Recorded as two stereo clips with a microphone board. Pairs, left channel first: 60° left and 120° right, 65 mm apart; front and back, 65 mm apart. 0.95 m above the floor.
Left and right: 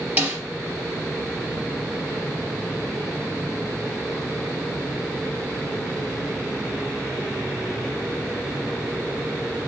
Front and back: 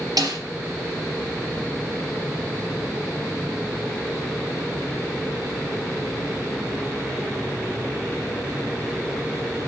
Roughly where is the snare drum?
Behind.